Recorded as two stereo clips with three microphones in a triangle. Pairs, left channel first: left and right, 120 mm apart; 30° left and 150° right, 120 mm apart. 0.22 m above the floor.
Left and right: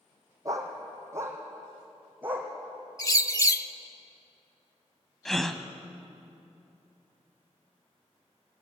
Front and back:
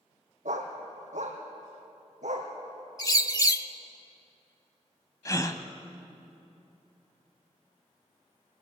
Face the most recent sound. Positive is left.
turn(degrees=5)